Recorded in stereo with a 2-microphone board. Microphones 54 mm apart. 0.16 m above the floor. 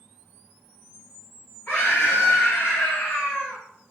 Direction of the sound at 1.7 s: 30° left (ahead or behind).